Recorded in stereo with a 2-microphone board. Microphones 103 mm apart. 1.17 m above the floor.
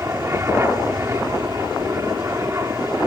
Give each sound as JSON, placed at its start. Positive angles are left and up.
{"t": 0.0, "sound": "an aircraft", "side_deg": -25}